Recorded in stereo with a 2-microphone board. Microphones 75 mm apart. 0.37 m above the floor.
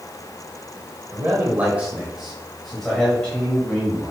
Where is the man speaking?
35° right (ahead or behind), 1.2 m; by 4.1 s 25° left (ahead or behind), 1.7 m.